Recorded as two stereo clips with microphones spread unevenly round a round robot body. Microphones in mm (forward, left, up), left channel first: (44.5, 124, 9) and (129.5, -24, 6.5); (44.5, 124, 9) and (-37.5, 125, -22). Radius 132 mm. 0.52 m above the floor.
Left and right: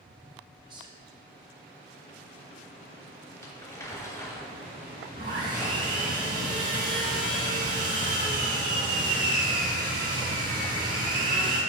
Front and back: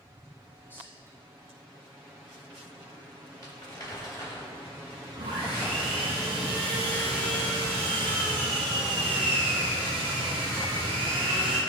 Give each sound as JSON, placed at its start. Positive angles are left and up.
{"t": 0.7, "sound": "a man speaking", "azimuth_deg": -90, "distance_m": 0.9}
{"t": 3.4, "sound": "crumpling", "azimuth_deg": 50, "distance_m": 3.0}
{"t": 5.2, "sound": "sawing", "azimuth_deg": -120, "distance_m": 0.9}